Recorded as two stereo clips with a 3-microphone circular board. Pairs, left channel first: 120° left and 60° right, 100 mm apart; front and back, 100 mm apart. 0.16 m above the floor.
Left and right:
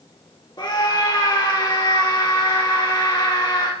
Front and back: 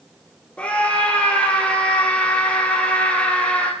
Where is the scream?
75° left, 3.5 m.